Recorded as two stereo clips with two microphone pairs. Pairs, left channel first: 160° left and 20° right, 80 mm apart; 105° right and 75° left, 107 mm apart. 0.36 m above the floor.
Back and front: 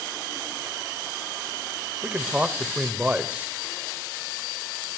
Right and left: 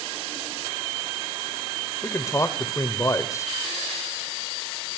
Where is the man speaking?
75° right, 1.0 m.